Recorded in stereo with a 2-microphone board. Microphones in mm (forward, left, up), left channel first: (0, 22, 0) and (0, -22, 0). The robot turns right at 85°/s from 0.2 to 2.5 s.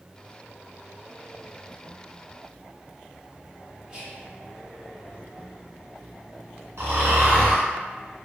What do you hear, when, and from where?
3.9 s whispering: 20° right (ahead or behind), 0.7 m
6.8 s snoring: 80° right, 1.5 m